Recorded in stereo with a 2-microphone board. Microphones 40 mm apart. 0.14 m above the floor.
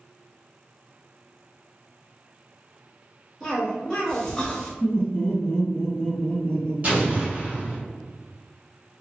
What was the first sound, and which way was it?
A cough, 10° left (ahead or behind).